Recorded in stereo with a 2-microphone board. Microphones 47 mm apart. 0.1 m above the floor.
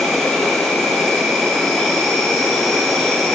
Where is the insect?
5° left (ahead or behind), 1.8 m.